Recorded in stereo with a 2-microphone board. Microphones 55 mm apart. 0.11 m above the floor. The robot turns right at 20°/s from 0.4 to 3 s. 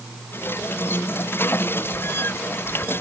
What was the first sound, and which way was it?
Only background noise.